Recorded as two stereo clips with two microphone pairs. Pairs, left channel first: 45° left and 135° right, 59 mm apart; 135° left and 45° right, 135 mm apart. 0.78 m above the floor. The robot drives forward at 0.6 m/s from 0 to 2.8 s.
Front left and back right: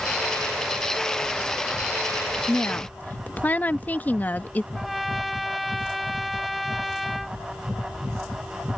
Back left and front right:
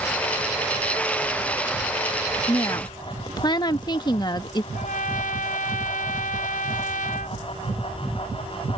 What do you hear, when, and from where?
2.5 s a woman speaking: 75° left; by 4.6 s 90° left
4.7 s a trumpet: 135° left